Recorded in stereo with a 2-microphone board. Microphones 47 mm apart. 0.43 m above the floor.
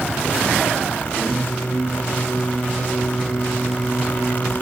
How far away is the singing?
About 2.5 m.